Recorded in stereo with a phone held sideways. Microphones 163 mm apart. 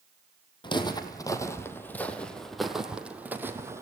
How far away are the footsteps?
About 2.5 m.